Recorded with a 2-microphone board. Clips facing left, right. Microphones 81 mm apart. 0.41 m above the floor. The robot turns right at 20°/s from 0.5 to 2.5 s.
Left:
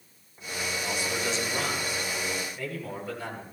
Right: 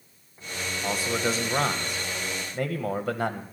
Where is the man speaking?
135° right, 1.9 m; by 3.4 s 105° right, 1.9 m.